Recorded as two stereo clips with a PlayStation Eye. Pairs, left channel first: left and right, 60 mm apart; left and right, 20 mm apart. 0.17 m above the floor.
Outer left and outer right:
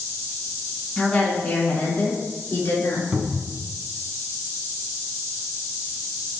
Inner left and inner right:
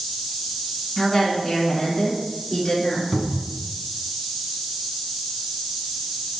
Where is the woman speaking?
5° left (ahead or behind), 1.8 m; by 3.0 s 35° left (ahead or behind), 3 m.